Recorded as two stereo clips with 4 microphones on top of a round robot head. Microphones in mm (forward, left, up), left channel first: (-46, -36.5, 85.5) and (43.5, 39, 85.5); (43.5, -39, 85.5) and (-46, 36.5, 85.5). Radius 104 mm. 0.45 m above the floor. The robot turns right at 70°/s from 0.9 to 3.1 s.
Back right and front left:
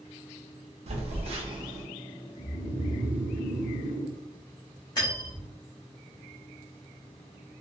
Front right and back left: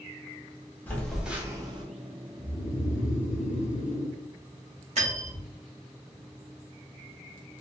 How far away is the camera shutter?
No camera shutter in this recording.